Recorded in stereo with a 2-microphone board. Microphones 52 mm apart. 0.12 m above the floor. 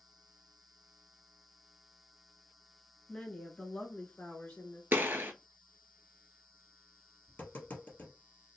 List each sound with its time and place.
3.1 s a woman speaking: 10° left (ahead or behind), 1.1 m; by 4.8 s 40° left (ahead or behind), 1.3 m
4.9 s a gunshot: 50° right (ahead or behind), 0.6 m
7.3 s tapping: 40° left (ahead or behind), 2 m